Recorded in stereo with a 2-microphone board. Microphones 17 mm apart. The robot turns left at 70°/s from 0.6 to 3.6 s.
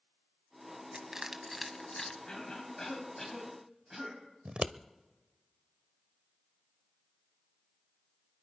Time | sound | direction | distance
0.9 | crushing | 40° right (ahead or behind) | 1.3 m
2.3 | a cough | 75° left | 4.5 m
4.5 | scissors | 70° right (ahead or behind) | 0.5 m